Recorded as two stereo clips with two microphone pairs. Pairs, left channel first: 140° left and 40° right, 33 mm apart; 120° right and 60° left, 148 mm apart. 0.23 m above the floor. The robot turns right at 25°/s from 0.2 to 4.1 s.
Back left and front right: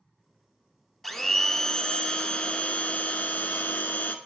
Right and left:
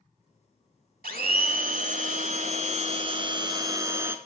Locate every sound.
1.0 s a blender: 55° left, 0.6 m; by 4.2 s 130° left, 0.6 m